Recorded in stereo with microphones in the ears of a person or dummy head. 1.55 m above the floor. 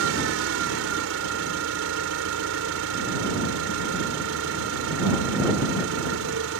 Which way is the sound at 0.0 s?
80° right.